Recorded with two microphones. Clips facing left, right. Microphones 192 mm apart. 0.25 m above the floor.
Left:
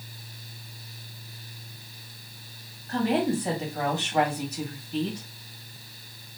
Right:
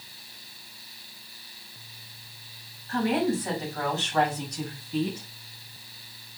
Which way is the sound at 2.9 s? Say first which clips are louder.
Even; 40° left (ahead or behind).